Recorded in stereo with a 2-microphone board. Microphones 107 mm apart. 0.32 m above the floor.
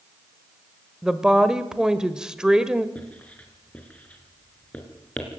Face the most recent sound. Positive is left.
turn(degrees=10)  # may be behind; listen again after turning